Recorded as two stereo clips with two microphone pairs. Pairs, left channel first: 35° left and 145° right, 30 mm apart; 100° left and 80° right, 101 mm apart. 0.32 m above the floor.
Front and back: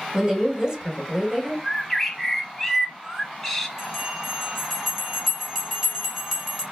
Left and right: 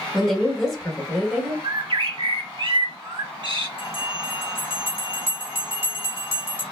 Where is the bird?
50° right, 0.6 m.